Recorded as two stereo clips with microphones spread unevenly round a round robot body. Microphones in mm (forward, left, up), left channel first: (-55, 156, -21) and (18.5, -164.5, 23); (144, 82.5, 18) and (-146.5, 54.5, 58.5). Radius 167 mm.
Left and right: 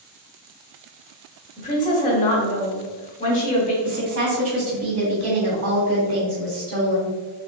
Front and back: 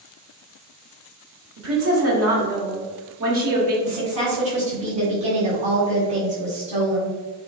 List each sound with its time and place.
1.6 s a woman speaking: 155° left, 1.2 m
3.8 s a woman speaking: 110° right, 1.7 m